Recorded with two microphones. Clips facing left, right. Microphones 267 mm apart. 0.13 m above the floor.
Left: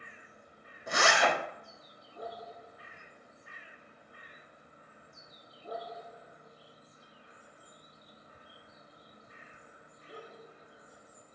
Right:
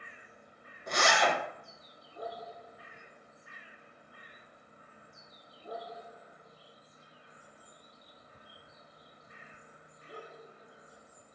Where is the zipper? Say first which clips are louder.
Left 1 dB; 5° left (ahead or behind), 0.5 m.